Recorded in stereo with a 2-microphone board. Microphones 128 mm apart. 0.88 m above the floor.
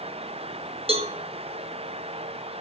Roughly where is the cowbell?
Right.